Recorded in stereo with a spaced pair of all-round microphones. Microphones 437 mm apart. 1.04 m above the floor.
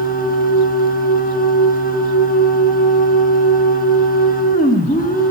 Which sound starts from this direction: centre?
A machine running, at 0.0 s.